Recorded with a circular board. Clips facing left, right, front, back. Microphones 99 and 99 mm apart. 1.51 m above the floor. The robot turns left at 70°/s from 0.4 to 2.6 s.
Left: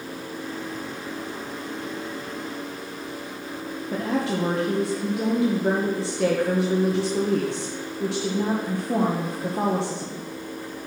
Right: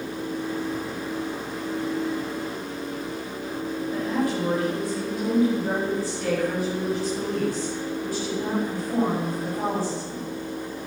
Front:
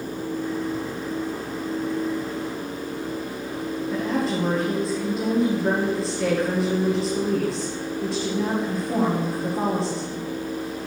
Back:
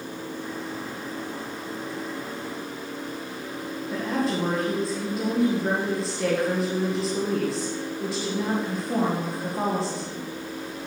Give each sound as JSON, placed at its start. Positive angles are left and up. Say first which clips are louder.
{"t": 3.9, "sound": "a woman speaking", "louder": "left 1 dB, front 1 dB", "azimuth_deg": 90, "distance_m": 1.6}